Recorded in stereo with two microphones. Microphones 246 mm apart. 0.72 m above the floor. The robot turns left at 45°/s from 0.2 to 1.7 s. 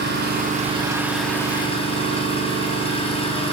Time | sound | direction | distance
0.0 | an engine running | 135° right | 3 m